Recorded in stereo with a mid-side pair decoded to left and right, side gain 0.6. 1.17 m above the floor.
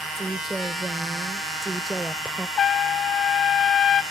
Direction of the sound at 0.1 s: 15° right.